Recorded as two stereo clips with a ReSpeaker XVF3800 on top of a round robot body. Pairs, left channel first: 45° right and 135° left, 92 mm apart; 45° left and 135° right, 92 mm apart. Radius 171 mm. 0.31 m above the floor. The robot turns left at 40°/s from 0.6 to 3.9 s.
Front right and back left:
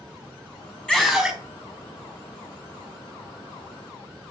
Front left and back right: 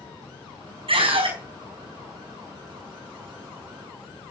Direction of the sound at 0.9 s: 125° right.